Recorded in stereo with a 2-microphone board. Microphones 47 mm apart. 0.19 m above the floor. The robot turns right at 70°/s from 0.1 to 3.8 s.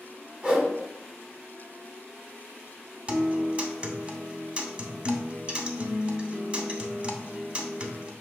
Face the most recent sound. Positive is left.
turn(degrees=-25)  # may be behind; listen again after turning